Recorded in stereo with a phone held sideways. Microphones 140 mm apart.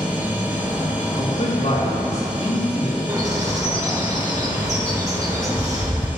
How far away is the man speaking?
About 3 m.